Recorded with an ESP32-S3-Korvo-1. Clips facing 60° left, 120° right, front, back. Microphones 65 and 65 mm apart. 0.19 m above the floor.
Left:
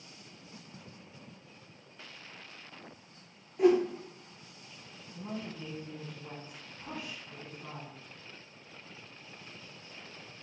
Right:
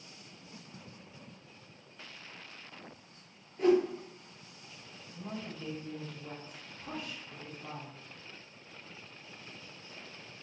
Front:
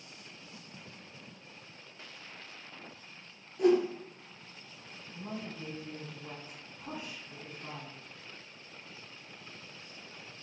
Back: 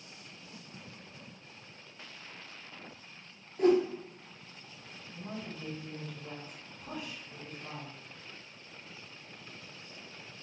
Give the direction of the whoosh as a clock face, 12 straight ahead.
7 o'clock.